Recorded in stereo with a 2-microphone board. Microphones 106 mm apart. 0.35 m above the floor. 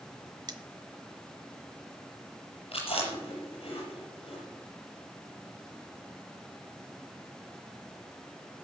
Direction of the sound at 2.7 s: 70° left (ahead or behind).